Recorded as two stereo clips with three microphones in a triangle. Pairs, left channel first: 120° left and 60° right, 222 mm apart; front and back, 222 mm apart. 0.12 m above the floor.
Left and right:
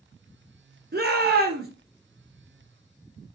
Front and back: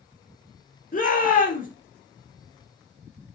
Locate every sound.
0.9 s a shout: 40° right, 2 m